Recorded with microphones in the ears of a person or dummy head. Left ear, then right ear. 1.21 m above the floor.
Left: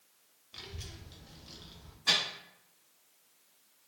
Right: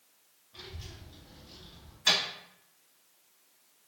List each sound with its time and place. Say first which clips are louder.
0.5 s a child speaking: left 1 dB; 80° left, 1.4 m
2.1 s a microwave: right 2 dB; 70° right (ahead or behind), 1.4 m